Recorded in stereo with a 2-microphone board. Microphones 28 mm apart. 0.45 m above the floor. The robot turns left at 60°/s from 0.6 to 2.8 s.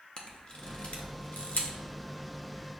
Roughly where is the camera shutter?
Left.